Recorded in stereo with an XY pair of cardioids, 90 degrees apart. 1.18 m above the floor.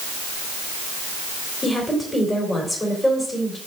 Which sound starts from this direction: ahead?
A woman speaking, at 1.6 s.